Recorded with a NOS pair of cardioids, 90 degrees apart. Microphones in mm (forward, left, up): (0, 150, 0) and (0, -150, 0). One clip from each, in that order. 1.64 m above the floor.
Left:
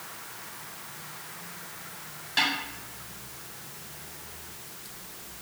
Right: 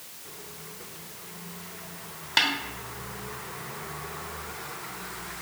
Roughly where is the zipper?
No zipper in this recording.